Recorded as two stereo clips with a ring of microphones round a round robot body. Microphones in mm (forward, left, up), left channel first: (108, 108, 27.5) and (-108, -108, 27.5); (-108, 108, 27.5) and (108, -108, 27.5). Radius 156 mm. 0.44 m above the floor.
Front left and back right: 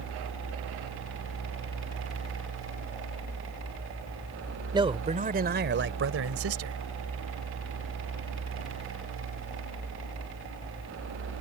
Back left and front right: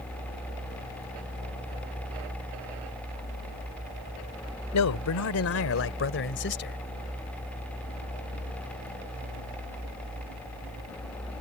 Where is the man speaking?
150° left; by 6.8 s 170° right.